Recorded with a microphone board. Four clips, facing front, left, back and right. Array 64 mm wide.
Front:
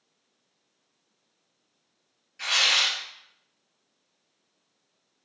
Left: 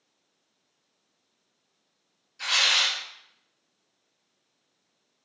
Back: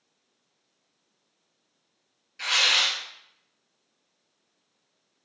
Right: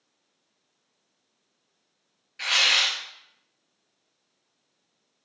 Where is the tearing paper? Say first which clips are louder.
Right 2 dB, back 1 dB; 100° right, 0.7 m.